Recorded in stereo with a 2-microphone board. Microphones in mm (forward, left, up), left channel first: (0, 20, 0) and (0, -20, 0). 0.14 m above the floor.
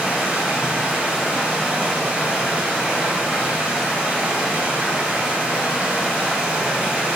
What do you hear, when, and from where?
0.0 s running water: 25° right (ahead or behind), 1.2 m